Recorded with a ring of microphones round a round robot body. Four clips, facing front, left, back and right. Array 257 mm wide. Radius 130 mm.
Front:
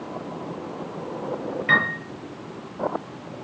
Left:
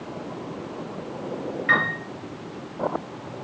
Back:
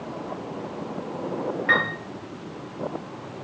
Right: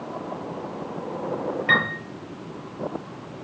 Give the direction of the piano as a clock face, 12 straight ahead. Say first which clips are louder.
Left 1 dB, front 2 dB; 2 o'clock.